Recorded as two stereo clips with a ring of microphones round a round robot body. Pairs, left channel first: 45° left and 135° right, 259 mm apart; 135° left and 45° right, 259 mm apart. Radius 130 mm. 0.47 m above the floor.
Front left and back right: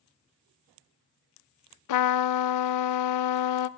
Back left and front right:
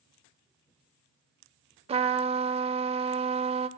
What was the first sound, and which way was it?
A trumpet, 25° left.